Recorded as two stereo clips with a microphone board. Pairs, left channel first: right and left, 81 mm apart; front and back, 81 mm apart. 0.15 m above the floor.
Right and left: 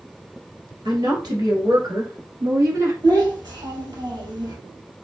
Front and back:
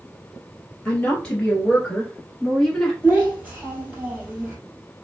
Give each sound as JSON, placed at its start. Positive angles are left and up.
{"t": 0.8, "sound": "a woman speaking", "azimuth_deg": 75, "distance_m": 2.5}
{"t": 3.0, "sound": "a child speaking", "azimuth_deg": 110, "distance_m": 1.9}